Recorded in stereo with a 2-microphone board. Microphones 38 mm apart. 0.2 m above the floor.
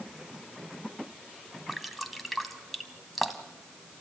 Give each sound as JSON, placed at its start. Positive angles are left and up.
{"t": 1.7, "sound": "dripping", "side_deg": 0, "distance_m": 1.3}